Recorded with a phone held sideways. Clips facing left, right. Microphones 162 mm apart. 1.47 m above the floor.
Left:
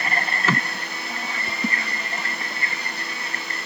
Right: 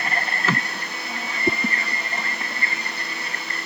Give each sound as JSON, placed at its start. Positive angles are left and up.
{"t": 1.5, "sound": "a whoosh", "side_deg": -70}